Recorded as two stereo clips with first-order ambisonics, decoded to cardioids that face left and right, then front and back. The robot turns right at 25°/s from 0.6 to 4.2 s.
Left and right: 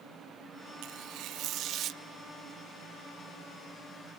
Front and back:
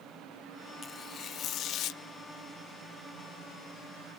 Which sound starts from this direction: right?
Tearing paper, at 0.8 s.